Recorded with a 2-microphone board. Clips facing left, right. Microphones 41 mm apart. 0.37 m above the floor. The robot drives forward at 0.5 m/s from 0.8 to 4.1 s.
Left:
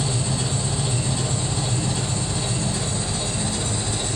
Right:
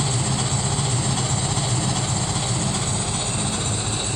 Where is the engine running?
70° right (ahead or behind), 1.6 m; by 4.2 s 50° right (ahead or behind), 2 m.